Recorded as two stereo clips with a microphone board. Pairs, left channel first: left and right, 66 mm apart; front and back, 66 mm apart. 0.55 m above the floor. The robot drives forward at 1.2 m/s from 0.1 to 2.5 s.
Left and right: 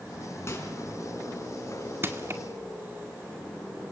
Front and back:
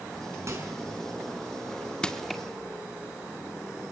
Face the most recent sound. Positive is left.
turn(degrees=-100)